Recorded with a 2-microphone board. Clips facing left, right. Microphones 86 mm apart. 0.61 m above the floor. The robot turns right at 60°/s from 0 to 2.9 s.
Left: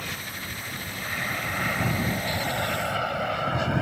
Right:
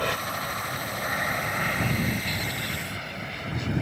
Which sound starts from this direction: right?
An aircraft, at 0.0 s.